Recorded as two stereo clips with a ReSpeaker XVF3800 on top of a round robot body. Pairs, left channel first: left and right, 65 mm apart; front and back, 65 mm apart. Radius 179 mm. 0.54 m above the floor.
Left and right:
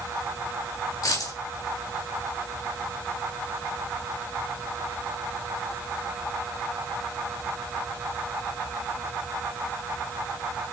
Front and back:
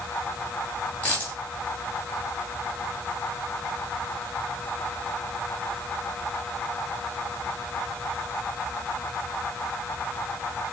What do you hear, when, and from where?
1.0 s a dropped coin: 70° left, 4 m